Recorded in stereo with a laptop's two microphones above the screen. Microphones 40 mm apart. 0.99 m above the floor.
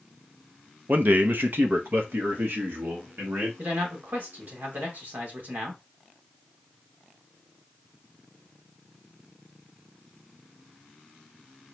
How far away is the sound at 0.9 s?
About 0.7 m.